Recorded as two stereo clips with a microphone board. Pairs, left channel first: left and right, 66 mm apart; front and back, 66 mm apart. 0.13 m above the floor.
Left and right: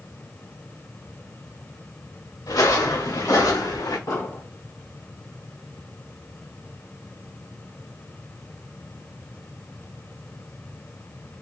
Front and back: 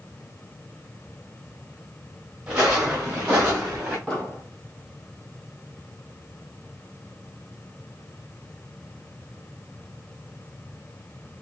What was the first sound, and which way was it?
Footsteps, 105° left.